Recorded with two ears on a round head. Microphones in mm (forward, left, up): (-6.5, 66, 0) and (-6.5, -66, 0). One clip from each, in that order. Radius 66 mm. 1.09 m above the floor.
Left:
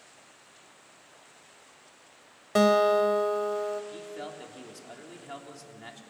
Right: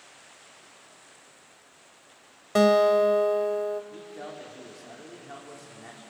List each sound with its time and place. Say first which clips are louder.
2.5 s a guitar: right 2 dB; 5° left (ahead or behind), 0.9 m
3.9 s a man speaking: left 1 dB; 80° left, 3.5 m